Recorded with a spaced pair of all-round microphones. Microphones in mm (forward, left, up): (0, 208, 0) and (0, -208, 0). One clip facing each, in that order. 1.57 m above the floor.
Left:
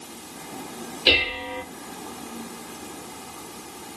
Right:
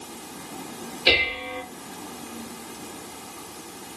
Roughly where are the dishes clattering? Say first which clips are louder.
Even; centre.